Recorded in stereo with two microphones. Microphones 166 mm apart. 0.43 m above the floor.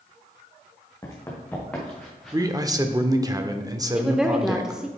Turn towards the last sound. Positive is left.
turn(degrees=-5)  # may be behind; listen again after turning